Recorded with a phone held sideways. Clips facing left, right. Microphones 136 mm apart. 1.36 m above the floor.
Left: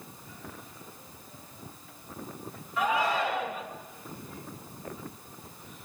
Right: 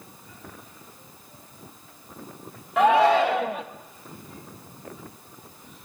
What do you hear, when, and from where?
2.8 s a shout: 85° right, 1.5 m